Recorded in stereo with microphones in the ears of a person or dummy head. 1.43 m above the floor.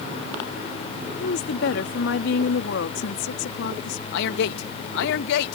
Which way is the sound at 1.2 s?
75° left (ahead or behind).